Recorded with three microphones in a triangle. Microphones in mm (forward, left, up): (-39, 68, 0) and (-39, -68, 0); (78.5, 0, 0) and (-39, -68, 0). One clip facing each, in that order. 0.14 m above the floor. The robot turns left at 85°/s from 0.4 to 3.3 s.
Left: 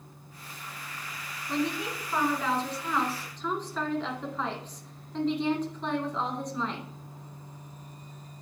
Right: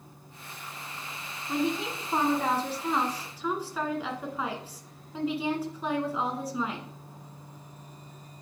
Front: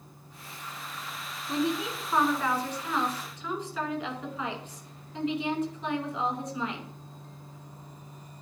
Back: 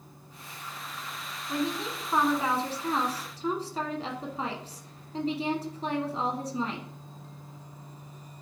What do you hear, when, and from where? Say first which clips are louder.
1.5 s a woman speaking: right 1 dB, front 2 dB; 15° right, 1.4 m; by 6.9 s 170° right, 1.4 m